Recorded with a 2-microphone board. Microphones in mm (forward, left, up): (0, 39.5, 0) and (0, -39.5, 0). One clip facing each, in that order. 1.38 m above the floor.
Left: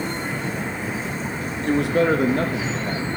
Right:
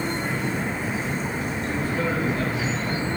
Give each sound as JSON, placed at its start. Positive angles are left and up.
{"t": 1.7, "sound": "a man speaking", "side_deg": 75, "distance_m": 0.8}